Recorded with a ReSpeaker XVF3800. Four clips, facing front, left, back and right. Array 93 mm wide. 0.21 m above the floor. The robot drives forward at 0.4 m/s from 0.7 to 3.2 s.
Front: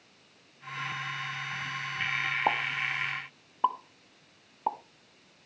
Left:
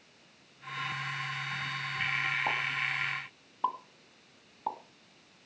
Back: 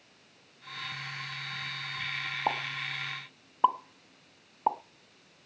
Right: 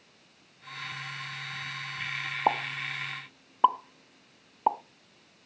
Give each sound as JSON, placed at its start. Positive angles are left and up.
{"t": 2.5, "sound": "a pop", "azimuth_deg": -80, "distance_m": 0.8}